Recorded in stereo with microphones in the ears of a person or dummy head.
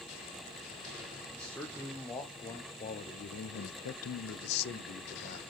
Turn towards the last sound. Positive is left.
turn(degrees=40)  # may be behind; listen again after turning